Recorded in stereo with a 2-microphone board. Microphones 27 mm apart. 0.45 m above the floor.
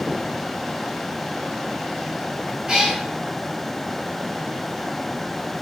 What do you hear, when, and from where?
2.7 s a cat meowing: 25° right (ahead or behind), 1.7 m